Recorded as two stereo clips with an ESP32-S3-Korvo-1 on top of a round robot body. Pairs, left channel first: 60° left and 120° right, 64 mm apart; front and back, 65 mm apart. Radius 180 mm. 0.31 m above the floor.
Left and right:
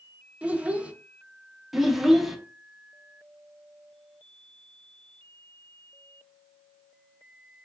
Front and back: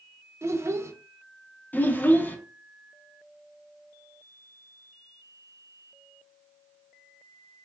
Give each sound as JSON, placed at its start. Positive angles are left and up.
{"t": 0.4, "sound": "a child speaking", "azimuth_deg": 180, "distance_m": 0.6}
{"t": 1.7, "sound": "a child speaking", "azimuth_deg": -35, "distance_m": 0.7}